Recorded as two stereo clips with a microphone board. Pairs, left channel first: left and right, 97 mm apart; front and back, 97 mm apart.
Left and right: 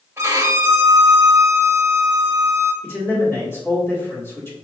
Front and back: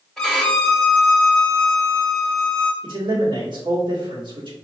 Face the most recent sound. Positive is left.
turn(degrees=150)